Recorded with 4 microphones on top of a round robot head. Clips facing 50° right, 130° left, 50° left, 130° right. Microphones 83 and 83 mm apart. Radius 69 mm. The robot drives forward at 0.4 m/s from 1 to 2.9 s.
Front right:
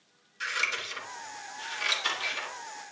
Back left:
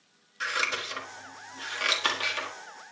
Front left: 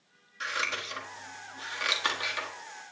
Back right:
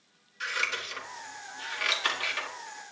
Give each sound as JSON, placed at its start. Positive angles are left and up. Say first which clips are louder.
{"t": 0.4, "sound": "scissors", "louder": "back left 2 dB, even", "azimuth_deg": 95, "distance_m": 1.5}